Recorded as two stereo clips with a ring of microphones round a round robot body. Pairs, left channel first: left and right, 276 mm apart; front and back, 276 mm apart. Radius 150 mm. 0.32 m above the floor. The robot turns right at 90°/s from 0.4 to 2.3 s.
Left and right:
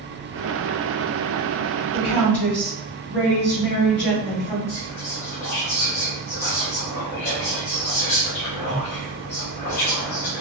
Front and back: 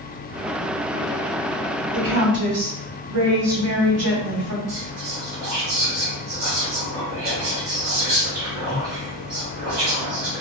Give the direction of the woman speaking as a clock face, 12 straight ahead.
8 o'clock.